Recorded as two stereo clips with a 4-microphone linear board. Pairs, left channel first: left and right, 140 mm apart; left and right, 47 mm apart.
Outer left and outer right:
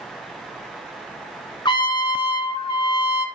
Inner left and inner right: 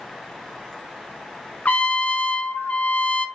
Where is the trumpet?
35° left (ahead or behind), 1.0 m.